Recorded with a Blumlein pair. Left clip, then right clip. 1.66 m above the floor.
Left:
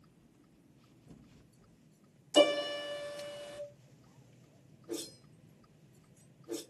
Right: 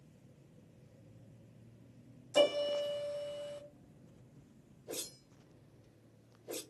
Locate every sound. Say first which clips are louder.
2.3 s a piano: left 3 dB; 70° left, 0.6 m
4.9 s a whoosh: left 2 dB; 65° right, 1.5 m